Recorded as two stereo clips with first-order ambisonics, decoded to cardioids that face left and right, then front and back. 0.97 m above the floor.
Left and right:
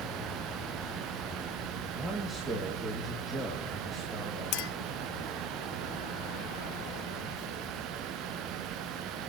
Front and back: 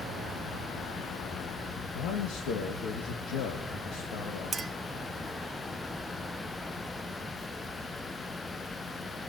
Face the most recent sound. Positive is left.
turn(degrees=110)